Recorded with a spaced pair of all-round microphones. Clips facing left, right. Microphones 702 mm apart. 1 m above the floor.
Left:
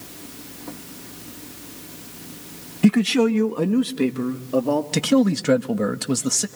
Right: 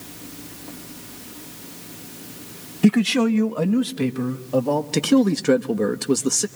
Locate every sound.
2.8 s a man speaking: 5° left (ahead or behind), 0.6 m; by 4.8 s 25° right (ahead or behind), 1.9 m
4.9 s a man speaking: 15° left (ahead or behind), 0.7 m